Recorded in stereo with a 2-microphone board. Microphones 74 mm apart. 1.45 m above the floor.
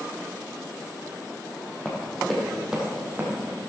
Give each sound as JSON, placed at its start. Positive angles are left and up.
{"t": 1.9, "sound": "running footsteps", "side_deg": 15, "distance_m": 3.0}